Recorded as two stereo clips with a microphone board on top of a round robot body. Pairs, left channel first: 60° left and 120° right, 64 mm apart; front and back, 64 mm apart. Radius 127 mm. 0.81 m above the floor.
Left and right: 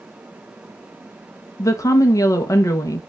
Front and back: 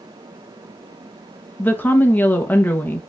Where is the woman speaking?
55° left, 1.1 m.